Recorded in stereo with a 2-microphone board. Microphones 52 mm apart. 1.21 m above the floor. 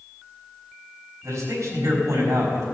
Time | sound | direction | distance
1.2 | a man speaking | 75° right (ahead or behind) | 3.5 m